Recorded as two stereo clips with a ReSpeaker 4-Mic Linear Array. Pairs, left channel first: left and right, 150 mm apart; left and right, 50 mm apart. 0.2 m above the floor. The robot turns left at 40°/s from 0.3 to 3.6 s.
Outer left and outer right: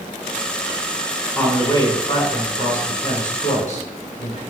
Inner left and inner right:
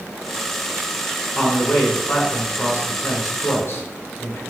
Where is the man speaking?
165° left, 2 m; by 4.4 s 75° left, 2 m.